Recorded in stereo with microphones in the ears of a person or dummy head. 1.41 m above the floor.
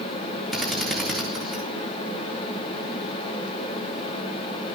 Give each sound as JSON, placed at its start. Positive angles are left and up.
{"t": 0.5, "sound": "a drill", "side_deg": 10, "distance_m": 3.5}